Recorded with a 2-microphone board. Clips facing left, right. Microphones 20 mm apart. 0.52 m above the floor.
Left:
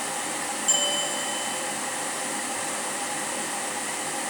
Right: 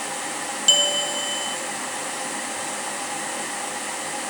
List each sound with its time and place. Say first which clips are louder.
0.7 s a bell: right 7 dB; 70° right (ahead or behind), 0.7 m